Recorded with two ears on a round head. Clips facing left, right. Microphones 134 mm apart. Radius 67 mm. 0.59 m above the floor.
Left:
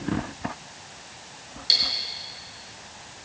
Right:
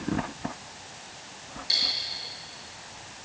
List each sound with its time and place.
1.7 s cutlery clinking: 40° left (ahead or behind), 4.5 m